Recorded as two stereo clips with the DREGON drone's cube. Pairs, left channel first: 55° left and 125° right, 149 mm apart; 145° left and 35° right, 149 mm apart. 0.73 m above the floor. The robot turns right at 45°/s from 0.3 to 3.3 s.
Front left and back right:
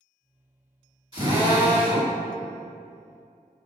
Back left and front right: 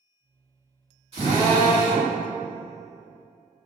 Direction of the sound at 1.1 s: 80° right.